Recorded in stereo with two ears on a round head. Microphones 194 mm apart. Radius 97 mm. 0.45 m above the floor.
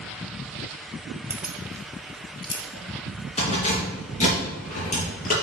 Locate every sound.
1.3 s keys jangling: 10° right (ahead or behind), 1.3 m; by 5.3 s 40° left (ahead or behind), 5.5 m